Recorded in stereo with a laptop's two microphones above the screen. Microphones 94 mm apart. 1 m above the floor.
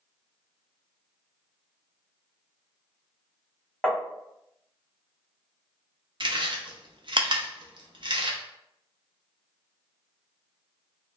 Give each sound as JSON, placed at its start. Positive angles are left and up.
{"t": 3.8, "sound": "tapping", "side_deg": 5, "distance_m": 1.2}
{"t": 6.2, "sound": "chewing", "side_deg": -55, "distance_m": 0.6}